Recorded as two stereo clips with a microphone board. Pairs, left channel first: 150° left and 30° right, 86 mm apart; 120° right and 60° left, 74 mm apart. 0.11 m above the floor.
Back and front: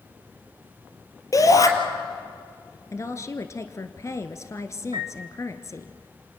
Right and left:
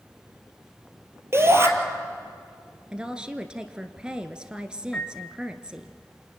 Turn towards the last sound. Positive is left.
turn(degrees=-45)